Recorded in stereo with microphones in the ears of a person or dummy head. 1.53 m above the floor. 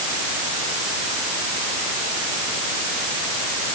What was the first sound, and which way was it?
Only background noise.